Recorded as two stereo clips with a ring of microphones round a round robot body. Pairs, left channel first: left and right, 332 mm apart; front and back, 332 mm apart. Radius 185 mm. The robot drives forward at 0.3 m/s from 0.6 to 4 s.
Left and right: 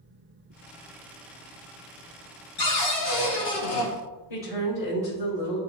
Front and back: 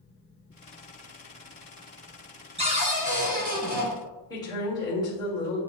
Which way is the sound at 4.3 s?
80° left.